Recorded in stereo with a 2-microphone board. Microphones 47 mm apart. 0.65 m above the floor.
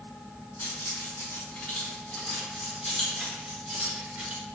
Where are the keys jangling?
55° left (ahead or behind), 1.7 m; by 4.4 s 25° right (ahead or behind), 1.8 m.